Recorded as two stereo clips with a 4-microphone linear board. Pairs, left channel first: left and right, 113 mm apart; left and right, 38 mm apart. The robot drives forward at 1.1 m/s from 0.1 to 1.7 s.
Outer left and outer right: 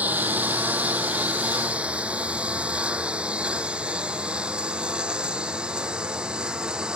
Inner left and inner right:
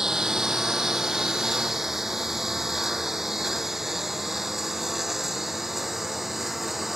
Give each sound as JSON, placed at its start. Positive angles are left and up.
{"t": 0.0, "sound": "a lawn mower", "side_deg": -15}